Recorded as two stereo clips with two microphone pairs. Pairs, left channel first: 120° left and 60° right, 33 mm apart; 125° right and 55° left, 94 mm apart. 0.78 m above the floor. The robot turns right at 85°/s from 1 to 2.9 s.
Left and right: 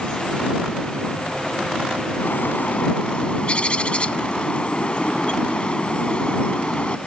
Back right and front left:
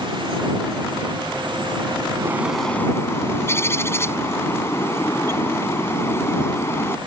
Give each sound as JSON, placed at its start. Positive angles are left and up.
{"t": 2.2, "sound": "a bird", "azimuth_deg": 110}